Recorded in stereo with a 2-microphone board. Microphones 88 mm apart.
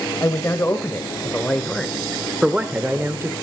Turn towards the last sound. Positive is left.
turn(degrees=-30)  # may be behind; listen again after turning